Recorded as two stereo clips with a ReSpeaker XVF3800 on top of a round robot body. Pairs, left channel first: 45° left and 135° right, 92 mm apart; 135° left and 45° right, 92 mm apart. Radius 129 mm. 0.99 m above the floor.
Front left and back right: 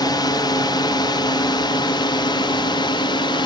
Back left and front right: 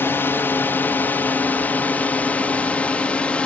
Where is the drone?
75° left; by 3.5 s 60° left.